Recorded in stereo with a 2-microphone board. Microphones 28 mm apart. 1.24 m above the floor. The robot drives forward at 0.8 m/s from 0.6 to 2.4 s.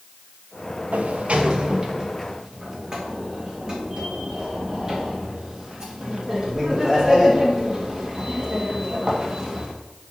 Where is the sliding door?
70° right (ahead or behind), 0.6 m; by 9.7 s 25° right (ahead or behind), 1.4 m.